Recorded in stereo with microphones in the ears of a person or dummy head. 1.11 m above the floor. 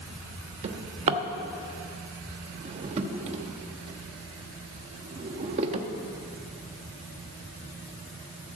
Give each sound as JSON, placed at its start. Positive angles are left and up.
{"t": 0.6, "sound": "a drawer", "side_deg": -30, "distance_m": 0.9}